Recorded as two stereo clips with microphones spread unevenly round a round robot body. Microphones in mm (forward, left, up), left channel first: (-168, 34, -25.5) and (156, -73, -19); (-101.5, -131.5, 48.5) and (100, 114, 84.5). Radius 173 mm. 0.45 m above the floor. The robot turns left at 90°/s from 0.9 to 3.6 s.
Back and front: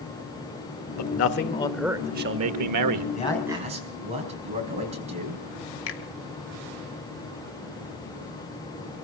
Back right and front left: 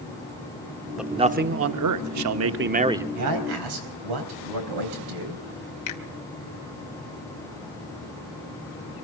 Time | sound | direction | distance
1.0 | a man speaking | 145° left | 1.0 m
3.1 | a man speaking | 95° left | 4 m
5.9 | a finger snap | 150° right | 1.8 m